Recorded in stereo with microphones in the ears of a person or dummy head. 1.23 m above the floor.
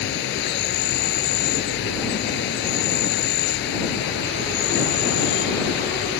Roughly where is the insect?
Left.